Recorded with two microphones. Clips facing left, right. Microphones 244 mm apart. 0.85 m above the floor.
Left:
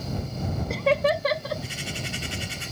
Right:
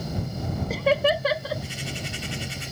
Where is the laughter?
Centre (ahead or behind).